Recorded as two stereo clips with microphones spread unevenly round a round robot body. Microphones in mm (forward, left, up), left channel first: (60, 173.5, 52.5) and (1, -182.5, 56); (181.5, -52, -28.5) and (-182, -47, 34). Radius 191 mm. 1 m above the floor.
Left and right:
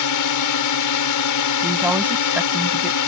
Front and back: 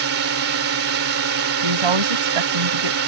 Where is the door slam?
I don't hear a door slam.